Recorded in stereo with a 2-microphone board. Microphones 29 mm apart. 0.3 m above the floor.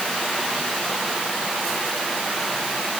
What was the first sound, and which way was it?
Only background noise.